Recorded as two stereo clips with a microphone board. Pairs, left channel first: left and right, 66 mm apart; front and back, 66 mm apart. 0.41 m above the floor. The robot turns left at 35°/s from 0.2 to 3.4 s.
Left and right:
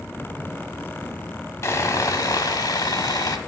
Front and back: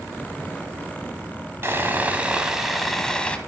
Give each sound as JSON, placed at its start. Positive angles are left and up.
{"t": 1.6, "sound": "sawing", "azimuth_deg": 130, "distance_m": 1.0}